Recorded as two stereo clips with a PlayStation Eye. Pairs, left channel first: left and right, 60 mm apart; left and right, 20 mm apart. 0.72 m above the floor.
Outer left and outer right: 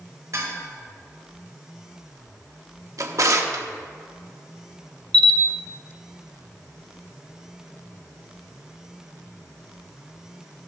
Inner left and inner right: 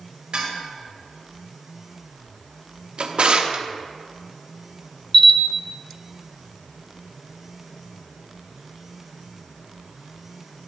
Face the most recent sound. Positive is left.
turn(degrees=15)  # may be behind; listen again after turning